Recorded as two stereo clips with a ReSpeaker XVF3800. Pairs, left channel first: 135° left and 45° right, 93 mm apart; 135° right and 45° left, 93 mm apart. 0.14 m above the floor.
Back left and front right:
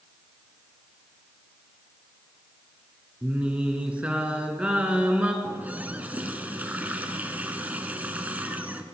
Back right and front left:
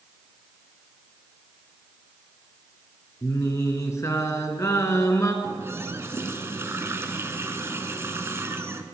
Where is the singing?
110° right, 1.5 m.